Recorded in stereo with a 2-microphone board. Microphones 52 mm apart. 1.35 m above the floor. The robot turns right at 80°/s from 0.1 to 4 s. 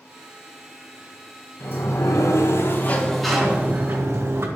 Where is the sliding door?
45° left, 1.8 m; by 4.5 s 120° right, 1.8 m.